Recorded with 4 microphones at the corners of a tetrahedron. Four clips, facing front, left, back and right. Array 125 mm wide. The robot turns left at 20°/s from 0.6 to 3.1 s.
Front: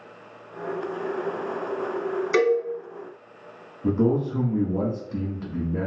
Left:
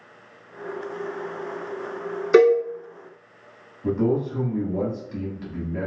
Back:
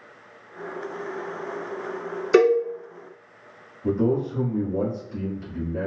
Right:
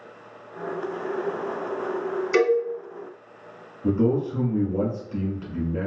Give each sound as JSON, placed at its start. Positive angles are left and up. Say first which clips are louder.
{"t": 2.3, "sound": "a cowbell", "louder": "left 5 dB, back 4 dB", "azimuth_deg": 125, "distance_m": 0.6}
{"t": 3.8, "sound": "a man speaking", "louder": "right 1 dB, front 1 dB", "azimuth_deg": -15, "distance_m": 1.4}